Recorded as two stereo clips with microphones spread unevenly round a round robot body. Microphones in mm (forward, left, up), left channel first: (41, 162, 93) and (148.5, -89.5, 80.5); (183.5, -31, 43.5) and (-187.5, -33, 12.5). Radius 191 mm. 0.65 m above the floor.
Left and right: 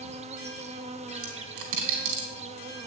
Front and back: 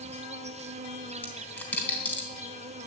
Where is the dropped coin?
85° right, 3.5 m.